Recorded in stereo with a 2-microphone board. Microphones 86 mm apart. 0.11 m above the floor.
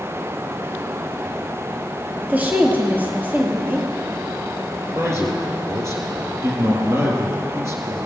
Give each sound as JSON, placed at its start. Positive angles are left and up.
{"t": 2.2, "sound": "a woman speaking", "side_deg": -25, "distance_m": 3.0}
{"t": 5.0, "sound": "a man speaking", "side_deg": -35, "distance_m": 3.5}